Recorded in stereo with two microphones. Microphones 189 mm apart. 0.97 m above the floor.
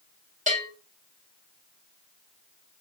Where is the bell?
40° right (ahead or behind), 1.3 m.